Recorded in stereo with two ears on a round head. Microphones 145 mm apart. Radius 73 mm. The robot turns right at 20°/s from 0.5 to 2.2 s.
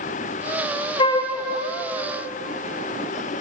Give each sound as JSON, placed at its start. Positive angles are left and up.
{"t": 1.0, "sound": "a flute", "side_deg": 30, "distance_m": 0.6}